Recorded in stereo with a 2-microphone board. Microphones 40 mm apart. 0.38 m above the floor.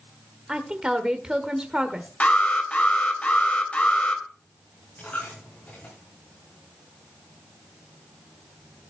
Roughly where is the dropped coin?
Left.